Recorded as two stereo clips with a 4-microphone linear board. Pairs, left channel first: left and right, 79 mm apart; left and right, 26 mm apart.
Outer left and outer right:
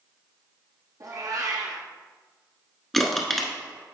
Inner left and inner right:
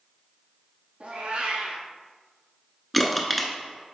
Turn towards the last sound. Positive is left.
turn(degrees=5)  # may be behind; listen again after turning